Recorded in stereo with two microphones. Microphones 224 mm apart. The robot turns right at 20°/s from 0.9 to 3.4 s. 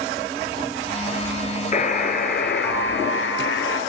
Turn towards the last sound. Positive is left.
turn(degrees=70)